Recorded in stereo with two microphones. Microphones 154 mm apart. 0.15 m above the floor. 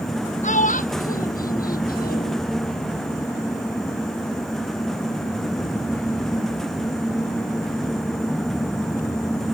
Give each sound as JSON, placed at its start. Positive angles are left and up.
{"t": 0.4, "sound": "a child speaking", "side_deg": 50}